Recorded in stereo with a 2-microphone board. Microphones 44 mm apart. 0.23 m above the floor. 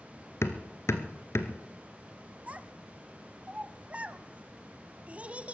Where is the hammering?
75° left (ahead or behind), 1.0 m.